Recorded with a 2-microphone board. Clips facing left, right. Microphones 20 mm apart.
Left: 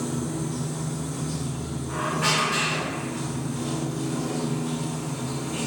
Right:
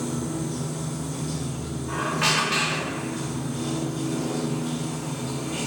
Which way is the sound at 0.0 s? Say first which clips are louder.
Even; 70° right (ahead or behind).